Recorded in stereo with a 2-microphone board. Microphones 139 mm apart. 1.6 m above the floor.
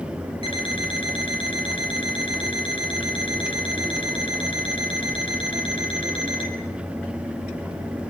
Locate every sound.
0.4 s an alarm clock: 40° left (ahead or behind), 5.5 m